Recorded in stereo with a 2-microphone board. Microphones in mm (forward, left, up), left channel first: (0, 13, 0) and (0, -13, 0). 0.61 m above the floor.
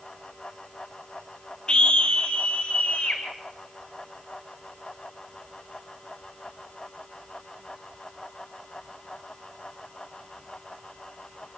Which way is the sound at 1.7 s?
40° left (ahead or behind).